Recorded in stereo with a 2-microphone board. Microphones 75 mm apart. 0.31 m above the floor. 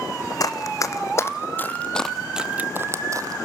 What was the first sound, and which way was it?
Running footsteps, 50° left (ahead or behind).